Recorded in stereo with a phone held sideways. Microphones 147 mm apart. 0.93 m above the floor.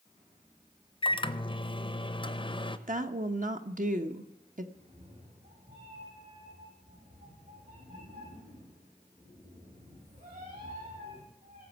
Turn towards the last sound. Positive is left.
turn(degrees=-80)